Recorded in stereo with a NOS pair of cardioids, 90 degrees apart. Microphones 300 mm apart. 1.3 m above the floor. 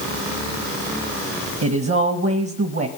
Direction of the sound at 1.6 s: 45° right.